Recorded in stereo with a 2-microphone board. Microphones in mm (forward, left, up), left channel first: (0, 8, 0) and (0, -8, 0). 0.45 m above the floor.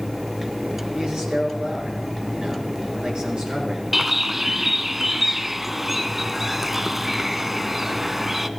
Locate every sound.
0.9 s a man speaking: 60° right (ahead or behind), 6 m
3.9 s a bird: 20° right (ahead or behind), 0.7 m